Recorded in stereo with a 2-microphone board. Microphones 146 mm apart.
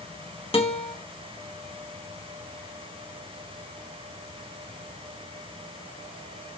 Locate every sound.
0.5 s a guitar: 40° left (ahead or behind), 1.3 m